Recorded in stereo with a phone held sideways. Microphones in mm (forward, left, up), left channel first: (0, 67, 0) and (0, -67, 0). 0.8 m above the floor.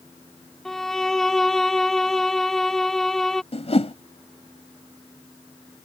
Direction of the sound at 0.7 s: 5° left (ahead or behind).